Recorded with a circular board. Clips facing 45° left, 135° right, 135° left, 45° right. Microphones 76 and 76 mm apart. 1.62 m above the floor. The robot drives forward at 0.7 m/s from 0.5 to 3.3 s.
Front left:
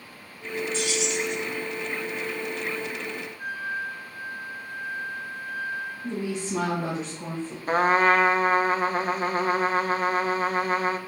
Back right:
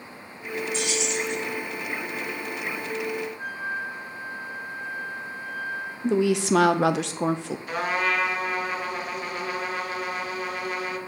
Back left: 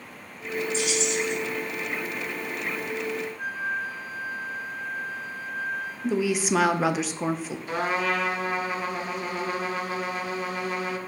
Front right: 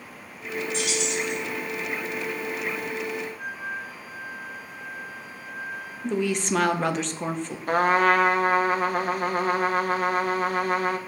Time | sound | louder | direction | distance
0.7 | keys jangling | even, back left 1 dB | 65° right | 3 m
3.4 | a flute | even, back left 4 dB | 145° right | 3.5 m
6.0 | a woman speaking | back right 11 dB, back left 1 dB | 140° right | 0.6 m
7.7 | a trumpet | front left 7 dB, front right 7 dB | 5° right | 0.6 m